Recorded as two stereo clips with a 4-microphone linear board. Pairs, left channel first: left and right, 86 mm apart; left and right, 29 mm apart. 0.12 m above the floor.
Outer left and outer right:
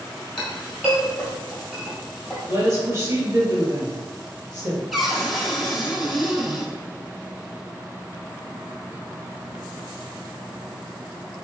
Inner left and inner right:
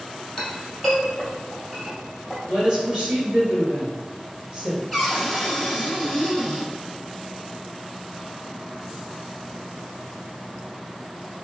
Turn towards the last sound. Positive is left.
turn(degrees=0)  # may be behind; listen again after turning